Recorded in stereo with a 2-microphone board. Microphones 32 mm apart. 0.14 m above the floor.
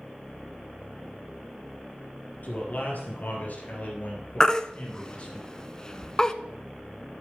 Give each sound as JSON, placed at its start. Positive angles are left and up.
{"t": 2.4, "sound": "a man speaking", "side_deg": 60, "distance_m": 4.0}
{"t": 4.4, "sound": "a baby crying", "side_deg": 20, "distance_m": 0.5}